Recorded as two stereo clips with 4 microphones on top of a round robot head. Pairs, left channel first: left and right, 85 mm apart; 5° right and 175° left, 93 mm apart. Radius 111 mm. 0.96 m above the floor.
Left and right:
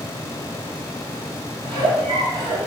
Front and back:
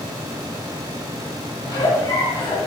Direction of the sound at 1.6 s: 60° right.